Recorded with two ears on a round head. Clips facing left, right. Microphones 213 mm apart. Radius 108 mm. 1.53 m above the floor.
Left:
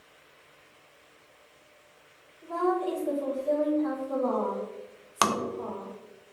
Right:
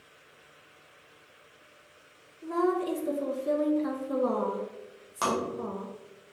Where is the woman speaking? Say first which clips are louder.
Right 1 dB; 30° right (ahead or behind), 0.5 m.